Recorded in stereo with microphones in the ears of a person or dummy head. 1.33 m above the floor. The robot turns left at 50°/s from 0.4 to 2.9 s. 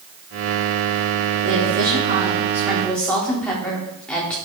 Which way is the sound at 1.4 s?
115° right.